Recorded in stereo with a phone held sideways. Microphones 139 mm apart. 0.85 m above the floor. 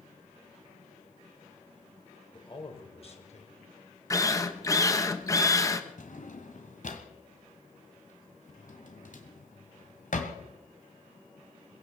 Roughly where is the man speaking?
Left.